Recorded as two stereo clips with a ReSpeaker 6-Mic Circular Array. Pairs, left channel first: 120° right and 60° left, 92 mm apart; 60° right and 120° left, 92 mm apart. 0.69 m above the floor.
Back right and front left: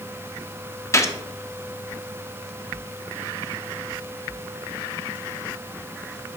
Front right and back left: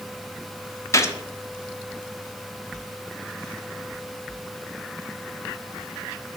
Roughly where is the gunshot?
Right.